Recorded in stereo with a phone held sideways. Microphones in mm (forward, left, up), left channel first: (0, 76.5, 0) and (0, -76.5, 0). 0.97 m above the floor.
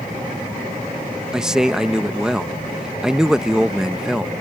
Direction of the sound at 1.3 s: 5° right (ahead or behind).